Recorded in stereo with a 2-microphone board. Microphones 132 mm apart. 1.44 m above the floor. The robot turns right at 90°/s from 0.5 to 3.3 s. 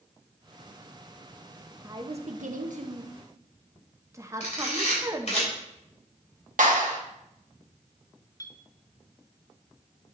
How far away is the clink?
About 0.7 m.